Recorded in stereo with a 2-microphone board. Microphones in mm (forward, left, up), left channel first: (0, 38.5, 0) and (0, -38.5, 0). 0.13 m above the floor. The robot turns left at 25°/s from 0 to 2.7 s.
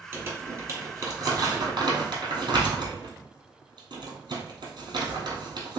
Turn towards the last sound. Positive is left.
turn(degrees=-70)  # may be behind; listen again after turning